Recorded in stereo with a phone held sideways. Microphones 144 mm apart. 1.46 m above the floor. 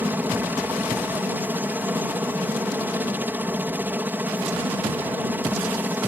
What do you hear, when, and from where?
0.0 s a helicopter: 15° right (ahead or behind)